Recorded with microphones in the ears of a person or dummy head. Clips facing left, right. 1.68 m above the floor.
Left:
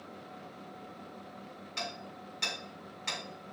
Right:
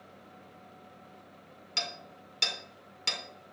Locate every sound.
1.8 s hammering: 50° right (ahead or behind), 2 m